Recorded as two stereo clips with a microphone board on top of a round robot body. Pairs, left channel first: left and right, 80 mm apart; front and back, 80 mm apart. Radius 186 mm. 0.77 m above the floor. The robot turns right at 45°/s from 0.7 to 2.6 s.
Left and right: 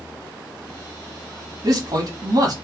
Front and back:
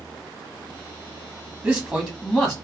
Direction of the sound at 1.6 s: 120° right.